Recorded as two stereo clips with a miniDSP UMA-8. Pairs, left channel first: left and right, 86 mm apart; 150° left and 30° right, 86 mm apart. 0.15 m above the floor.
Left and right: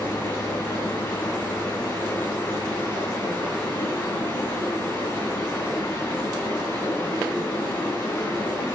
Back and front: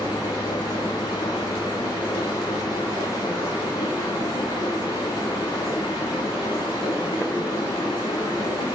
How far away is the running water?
About 3 m.